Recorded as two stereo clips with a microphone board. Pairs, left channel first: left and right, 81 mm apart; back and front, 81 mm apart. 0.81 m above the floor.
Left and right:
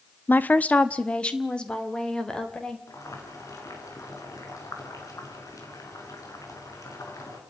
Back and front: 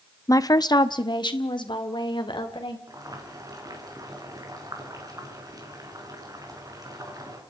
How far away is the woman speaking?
About 0.8 m.